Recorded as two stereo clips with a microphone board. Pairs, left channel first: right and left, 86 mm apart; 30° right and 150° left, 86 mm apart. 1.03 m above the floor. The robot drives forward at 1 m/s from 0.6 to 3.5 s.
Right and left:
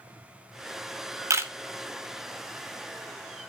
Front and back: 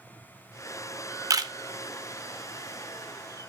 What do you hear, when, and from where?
1.3 s a camera shutter: 125° left, 0.7 m; by 1.5 s 140° left, 0.8 m